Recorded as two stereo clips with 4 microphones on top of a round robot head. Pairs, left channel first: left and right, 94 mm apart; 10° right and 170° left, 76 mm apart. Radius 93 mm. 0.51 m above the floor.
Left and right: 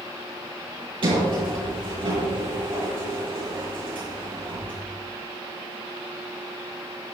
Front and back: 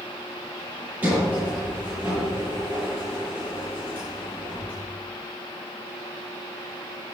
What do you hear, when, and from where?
1.0 s a sliding door: 120° right, 7.5 m